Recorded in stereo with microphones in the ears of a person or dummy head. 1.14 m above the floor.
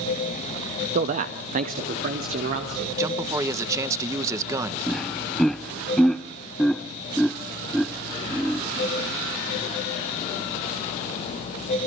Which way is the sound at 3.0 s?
5° right (ahead or behind).